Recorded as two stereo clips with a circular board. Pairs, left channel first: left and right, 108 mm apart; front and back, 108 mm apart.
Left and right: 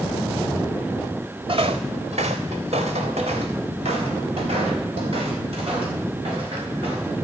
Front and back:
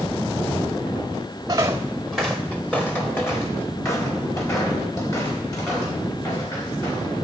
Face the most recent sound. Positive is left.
turn(degrees=-55)